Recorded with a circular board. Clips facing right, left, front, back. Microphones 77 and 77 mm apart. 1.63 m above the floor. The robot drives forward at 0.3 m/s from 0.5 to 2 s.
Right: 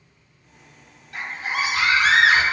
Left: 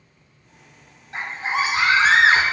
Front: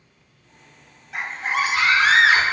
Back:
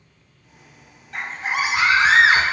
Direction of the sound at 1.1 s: 80° left.